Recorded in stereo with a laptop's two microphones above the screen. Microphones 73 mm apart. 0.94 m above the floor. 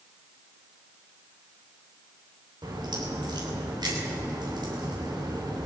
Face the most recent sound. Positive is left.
turn(degrees=-85)